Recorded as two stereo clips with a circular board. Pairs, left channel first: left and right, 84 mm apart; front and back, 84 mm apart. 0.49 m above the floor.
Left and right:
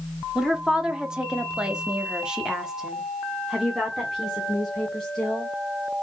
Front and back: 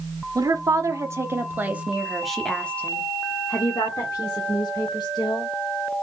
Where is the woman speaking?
170° right, 1.3 m; by 5.5 s straight ahead, 1.9 m.